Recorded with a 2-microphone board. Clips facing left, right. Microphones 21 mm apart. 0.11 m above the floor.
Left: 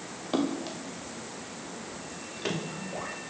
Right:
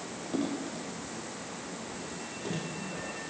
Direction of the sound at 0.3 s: 45° left (ahead or behind).